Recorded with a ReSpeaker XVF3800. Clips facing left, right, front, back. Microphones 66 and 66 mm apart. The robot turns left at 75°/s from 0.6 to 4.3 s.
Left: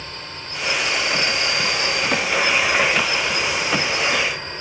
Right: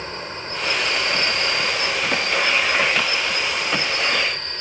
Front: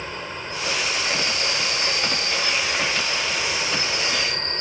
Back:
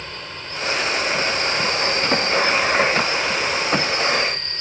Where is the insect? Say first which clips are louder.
Right 4 dB, front 2 dB; 65° right; by 4.6 s 15° left.